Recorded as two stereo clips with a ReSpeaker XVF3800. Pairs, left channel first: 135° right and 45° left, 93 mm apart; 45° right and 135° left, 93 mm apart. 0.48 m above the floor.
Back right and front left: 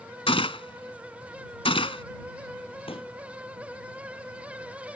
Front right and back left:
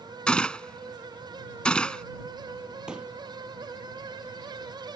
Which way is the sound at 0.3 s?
125° right.